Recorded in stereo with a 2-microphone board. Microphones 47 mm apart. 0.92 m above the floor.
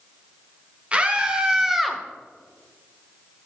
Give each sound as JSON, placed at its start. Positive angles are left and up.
{"t": 0.9, "sound": "a scream", "side_deg": -25, "distance_m": 1.5}